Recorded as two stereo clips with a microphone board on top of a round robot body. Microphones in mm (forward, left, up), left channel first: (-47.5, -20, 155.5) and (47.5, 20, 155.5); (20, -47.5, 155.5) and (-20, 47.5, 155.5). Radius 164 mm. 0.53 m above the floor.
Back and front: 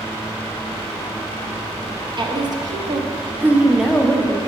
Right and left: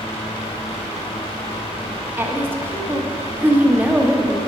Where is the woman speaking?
45° left, 1.4 m; by 4.4 s 175° right, 0.9 m.